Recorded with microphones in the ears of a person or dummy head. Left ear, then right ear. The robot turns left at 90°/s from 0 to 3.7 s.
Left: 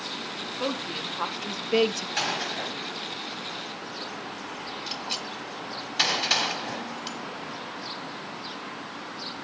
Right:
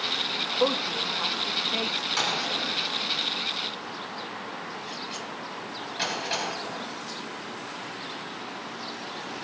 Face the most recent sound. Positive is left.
turn(degrees=35)  # may be behind; listen again after turning